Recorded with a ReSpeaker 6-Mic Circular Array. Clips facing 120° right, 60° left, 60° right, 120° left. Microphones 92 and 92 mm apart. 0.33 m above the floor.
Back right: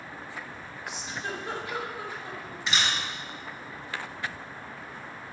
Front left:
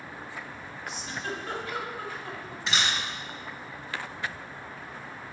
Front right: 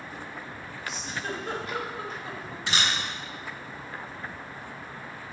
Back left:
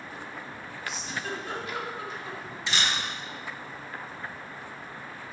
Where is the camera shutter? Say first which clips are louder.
Even, front right 1 dB; 30° right, 3 m.